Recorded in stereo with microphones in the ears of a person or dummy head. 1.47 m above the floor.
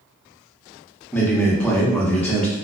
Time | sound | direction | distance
1.1 | a man speaking | 10° left (ahead or behind) | 0.7 m